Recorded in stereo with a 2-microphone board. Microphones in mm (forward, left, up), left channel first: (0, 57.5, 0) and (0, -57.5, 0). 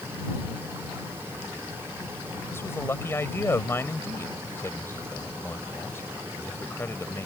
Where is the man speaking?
20° left (ahead or behind).